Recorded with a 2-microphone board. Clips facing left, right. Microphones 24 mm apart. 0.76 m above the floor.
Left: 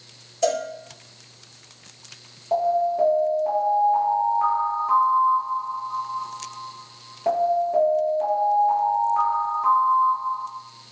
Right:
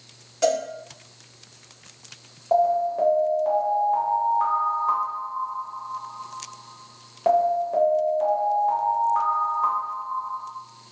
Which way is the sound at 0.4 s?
60° right (ahead or behind).